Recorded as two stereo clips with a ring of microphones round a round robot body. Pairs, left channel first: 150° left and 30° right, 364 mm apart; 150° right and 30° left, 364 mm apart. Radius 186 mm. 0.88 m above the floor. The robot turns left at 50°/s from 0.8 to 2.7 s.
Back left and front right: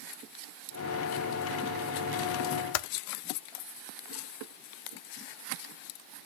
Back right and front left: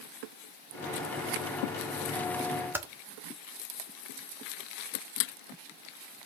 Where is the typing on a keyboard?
115° left, 0.5 m.